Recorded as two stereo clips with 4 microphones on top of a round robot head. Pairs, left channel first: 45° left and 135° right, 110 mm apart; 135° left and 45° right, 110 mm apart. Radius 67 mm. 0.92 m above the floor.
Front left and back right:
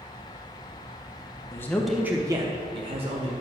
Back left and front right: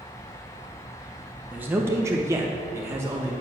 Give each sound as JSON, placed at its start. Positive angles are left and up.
{"t": 1.5, "sound": "a man speaking", "azimuth_deg": 20, "distance_m": 1.0}